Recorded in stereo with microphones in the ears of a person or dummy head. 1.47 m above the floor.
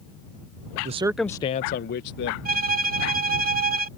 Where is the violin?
40° right (ahead or behind).